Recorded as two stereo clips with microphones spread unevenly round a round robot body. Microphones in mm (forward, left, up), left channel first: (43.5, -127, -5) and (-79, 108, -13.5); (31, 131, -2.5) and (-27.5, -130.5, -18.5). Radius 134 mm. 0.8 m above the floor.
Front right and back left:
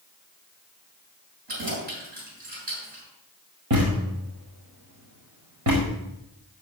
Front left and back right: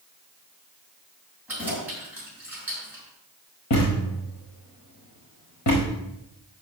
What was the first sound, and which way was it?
Keys jangling, 175° left.